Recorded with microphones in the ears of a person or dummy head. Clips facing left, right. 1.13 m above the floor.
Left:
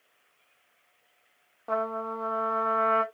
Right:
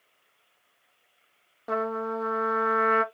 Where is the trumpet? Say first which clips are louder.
Right 2 dB; 20° right (ahead or behind), 0.5 m.